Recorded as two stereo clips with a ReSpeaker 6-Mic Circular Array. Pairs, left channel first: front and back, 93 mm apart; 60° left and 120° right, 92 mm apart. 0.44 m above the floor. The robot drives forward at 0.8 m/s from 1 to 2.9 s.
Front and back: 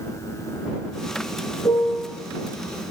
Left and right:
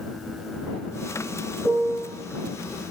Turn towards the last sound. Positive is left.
turn(degrees=-55)